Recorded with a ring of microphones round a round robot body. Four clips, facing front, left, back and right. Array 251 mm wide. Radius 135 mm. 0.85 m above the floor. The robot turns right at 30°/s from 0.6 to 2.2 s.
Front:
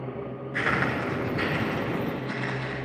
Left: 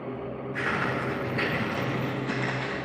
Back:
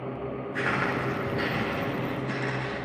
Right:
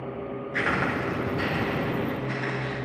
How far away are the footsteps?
About 0.8 m.